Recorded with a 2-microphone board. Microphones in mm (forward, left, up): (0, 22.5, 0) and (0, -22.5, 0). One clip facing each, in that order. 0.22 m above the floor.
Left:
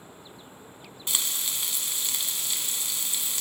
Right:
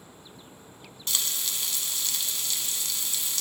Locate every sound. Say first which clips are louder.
1.1 s frying: even; 20° left (ahead or behind), 0.7 m